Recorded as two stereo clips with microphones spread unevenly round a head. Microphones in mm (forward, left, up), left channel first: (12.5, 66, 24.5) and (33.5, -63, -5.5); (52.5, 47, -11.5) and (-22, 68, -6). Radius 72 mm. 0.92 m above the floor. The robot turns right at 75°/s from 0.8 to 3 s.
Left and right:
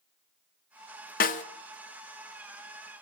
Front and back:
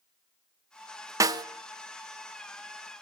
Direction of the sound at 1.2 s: 125° left.